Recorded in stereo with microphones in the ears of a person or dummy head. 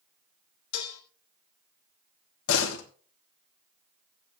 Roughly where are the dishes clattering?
Left.